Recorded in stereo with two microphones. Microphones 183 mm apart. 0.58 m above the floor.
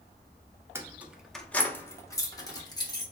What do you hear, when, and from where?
0.8 s keys jangling: 15° right (ahead or behind), 0.5 m; by 3.0 s 20° left (ahead or behind), 1.1 m